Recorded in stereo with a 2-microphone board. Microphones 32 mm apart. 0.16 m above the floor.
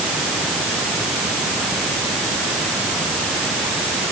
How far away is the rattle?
No rattle in this recording.